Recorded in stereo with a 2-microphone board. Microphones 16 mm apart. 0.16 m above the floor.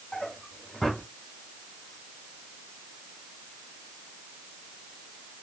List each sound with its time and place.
0.1 s a drawer: 55° left (ahead or behind), 2.5 m